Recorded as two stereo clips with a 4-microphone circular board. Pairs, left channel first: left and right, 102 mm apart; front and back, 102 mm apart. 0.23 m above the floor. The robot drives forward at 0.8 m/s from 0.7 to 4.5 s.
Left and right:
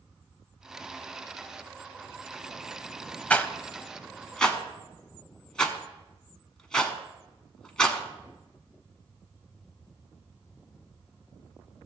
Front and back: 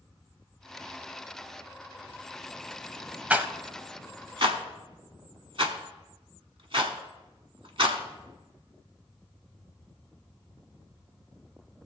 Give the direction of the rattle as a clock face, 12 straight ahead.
8 o'clock.